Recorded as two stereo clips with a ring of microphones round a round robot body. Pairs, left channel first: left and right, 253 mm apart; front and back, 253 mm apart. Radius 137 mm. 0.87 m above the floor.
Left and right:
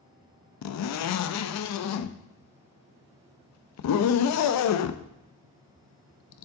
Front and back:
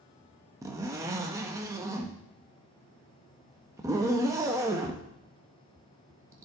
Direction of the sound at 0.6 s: 100° left.